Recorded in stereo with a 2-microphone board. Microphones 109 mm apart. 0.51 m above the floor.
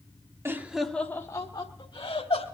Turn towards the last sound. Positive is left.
turn(degrees=60)  # may be behind; listen again after turning